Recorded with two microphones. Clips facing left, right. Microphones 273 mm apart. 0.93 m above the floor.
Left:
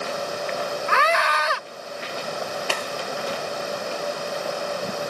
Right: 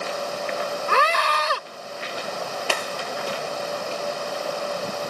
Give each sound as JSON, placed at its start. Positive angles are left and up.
{"t": 0.9, "sound": "a scream", "side_deg": -45}